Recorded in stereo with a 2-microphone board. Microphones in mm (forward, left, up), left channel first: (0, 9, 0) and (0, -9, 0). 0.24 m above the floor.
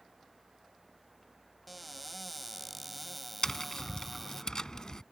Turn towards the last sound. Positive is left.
turn(degrees=35)  # may be behind; listen again after turning